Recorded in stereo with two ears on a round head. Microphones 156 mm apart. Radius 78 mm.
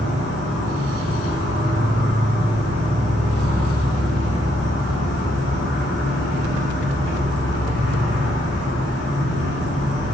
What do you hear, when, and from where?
0.0 s an insect: 70° left (ahead or behind), 1.8 m